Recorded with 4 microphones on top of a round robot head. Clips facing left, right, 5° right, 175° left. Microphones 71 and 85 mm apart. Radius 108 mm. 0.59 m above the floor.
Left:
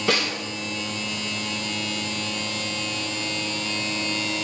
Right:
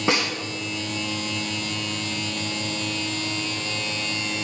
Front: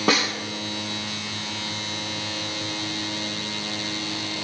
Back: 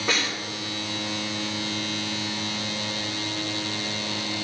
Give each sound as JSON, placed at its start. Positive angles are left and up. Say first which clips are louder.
{"t": 0.1, "sound": "a snare drum", "louder": "right 1 dB, front 5 dB", "azimuth_deg": -15, "distance_m": 1.5}